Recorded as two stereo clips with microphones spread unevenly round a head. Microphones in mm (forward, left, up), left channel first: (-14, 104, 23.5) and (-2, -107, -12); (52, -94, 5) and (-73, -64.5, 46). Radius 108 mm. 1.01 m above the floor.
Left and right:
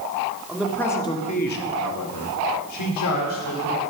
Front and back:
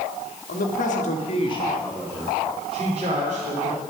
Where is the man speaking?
Straight ahead, 2 m; by 3.8 s 110° left, 3.5 m.